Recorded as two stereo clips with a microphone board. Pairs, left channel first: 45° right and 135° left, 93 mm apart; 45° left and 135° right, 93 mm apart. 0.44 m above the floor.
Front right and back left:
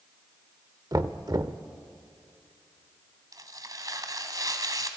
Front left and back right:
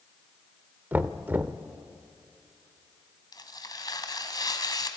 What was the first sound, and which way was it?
Knocking, 160° left.